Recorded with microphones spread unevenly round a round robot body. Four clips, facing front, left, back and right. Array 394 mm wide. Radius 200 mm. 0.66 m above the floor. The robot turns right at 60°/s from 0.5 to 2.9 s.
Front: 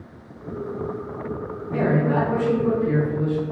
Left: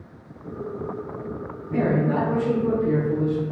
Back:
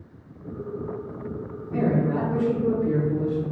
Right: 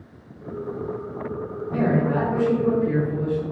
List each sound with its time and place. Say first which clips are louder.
1.7 s a man speaking: even, front 2 dB; straight ahead, 1.2 m; by 3.4 s 70° left, 1.2 m